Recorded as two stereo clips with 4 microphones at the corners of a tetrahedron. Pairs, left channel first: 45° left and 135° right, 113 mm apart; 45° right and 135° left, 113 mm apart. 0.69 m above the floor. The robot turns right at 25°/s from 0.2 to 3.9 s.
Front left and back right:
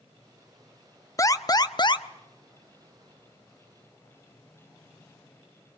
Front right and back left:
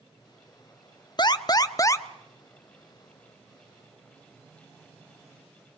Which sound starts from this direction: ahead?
An alarm, at 1.2 s.